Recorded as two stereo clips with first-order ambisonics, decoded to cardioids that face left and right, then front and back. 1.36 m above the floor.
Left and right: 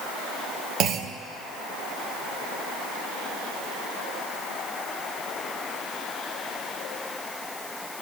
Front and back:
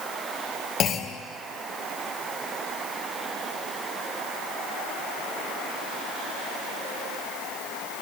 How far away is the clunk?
About 0.6 m.